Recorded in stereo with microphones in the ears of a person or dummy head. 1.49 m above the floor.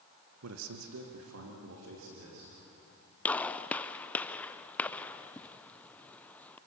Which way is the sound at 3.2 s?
5° left (ahead or behind).